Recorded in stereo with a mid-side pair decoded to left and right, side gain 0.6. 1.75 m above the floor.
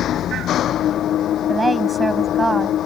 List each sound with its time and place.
0.0 s an engine running: 50° left
1.5 s a woman speaking: 15° right